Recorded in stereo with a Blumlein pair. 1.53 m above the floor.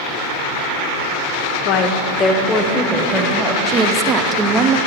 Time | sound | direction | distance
1.6 | a woman speaking | 45° left | 0.7 m
3.7 | a woman speaking | 25° right | 0.6 m